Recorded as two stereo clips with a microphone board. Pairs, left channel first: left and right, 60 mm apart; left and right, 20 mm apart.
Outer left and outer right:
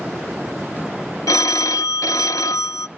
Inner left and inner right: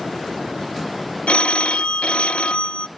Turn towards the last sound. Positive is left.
turn(degrees=80)